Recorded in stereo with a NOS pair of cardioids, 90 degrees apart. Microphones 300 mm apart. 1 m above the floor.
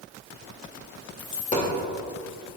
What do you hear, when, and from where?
1.2 s a dropped coin: 25° left, 1.7 m